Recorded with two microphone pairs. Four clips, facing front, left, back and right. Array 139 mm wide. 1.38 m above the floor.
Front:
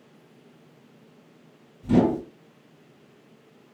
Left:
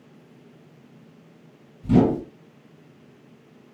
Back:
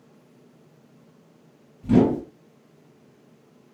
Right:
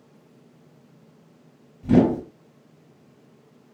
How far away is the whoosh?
About 1.9 m.